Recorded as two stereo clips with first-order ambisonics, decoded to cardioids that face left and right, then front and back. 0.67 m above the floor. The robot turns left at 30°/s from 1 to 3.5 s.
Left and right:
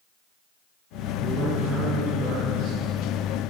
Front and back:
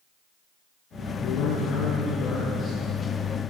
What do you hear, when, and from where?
1.2 s a man speaking: 25° right, 7 m; by 2.8 s 75° right, 7 m